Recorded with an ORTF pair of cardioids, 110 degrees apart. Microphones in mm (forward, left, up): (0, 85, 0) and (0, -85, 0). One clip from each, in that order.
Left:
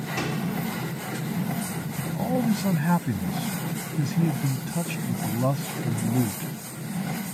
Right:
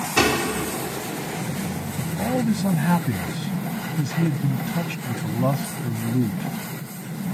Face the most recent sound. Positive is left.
turn(degrees=-10)